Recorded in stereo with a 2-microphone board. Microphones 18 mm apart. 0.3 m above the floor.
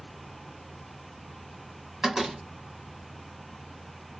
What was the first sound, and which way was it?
A door slam, 35° right (ahead or behind).